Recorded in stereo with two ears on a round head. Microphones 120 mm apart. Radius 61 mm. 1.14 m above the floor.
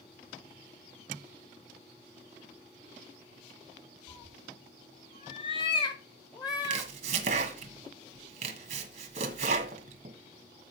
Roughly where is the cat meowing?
Left.